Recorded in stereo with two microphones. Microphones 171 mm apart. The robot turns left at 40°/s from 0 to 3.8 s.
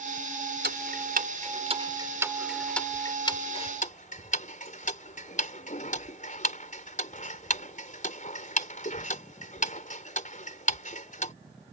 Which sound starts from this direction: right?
Ticking, at 0.6 s.